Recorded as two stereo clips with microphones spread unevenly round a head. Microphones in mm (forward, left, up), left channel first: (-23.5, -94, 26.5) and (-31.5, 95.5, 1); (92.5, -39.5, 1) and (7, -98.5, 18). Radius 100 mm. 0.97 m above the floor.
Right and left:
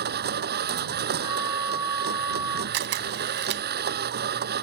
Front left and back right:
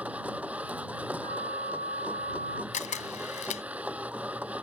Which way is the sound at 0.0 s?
130° left.